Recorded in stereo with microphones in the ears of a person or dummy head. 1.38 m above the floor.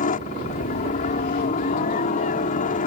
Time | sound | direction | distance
0.0 | a helicopter | 40° left (ahead or behind) | ?